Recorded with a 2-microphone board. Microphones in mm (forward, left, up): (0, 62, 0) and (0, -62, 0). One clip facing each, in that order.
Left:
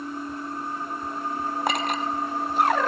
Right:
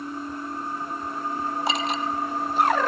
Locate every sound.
1.7 s a clink: 50° left (ahead or behind), 1.7 m